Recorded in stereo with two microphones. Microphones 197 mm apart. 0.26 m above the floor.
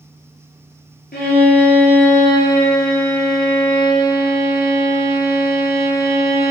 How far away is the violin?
About 0.9 m.